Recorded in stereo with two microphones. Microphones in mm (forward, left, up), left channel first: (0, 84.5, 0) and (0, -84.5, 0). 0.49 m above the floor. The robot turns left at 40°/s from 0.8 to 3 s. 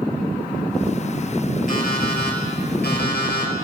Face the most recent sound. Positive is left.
turn(degrees=70)